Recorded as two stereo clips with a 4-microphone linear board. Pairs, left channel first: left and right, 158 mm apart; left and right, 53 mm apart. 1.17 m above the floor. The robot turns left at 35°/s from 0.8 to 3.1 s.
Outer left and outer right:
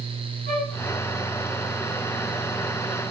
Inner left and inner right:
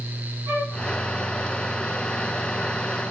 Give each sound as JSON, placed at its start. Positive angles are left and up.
{"t": 0.5, "sound": "a flute", "side_deg": -55, "distance_m": 3.5}